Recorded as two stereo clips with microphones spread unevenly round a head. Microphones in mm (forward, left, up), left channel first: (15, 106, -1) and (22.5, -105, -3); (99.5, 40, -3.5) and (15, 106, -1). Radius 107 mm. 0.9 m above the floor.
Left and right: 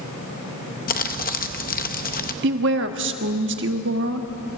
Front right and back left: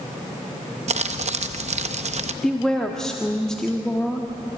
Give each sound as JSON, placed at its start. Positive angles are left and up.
{"t": 0.9, "sound": "crumpling", "azimuth_deg": 145, "distance_m": 0.7}
{"t": 2.4, "sound": "a woman speaking", "azimuth_deg": -125, "distance_m": 1.3}